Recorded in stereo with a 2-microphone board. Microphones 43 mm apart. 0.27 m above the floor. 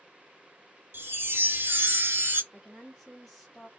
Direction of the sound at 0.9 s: 70° right (ahead or behind).